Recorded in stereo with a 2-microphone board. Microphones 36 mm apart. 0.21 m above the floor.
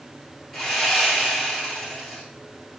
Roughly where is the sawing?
Centre.